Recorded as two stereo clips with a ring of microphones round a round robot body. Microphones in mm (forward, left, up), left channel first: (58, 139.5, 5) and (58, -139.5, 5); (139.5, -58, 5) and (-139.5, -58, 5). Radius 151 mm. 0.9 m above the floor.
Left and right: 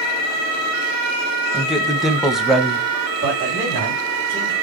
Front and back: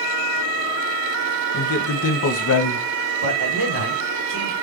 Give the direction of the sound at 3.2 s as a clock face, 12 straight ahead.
5 o'clock.